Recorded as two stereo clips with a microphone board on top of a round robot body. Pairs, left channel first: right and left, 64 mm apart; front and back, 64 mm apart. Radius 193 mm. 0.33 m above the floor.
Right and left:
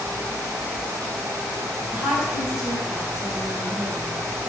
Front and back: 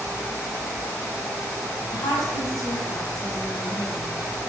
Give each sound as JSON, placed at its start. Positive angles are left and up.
{"t": 1.9, "sound": "a woman speaking", "azimuth_deg": 15, "distance_m": 5.5}